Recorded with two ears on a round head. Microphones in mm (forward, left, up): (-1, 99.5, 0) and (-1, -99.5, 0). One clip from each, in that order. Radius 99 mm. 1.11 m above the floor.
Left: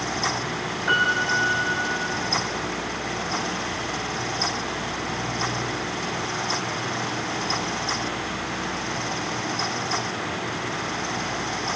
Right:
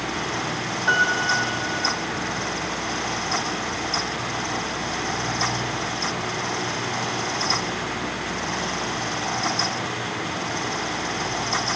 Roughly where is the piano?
Centre.